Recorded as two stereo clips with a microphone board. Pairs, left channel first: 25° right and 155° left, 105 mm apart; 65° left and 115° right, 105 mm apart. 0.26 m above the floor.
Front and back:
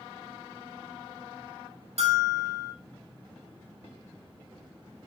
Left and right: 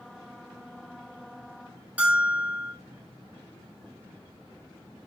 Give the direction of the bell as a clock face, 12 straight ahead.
6 o'clock.